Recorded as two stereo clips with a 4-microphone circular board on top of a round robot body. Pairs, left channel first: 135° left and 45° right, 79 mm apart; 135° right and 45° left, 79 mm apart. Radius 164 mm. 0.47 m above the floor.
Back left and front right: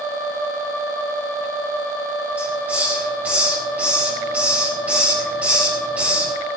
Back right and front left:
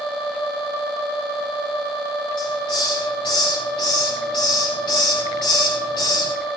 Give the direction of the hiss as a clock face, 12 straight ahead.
4 o'clock.